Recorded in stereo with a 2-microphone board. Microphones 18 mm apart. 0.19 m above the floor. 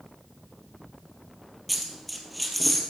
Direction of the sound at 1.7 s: Centre (ahead or behind).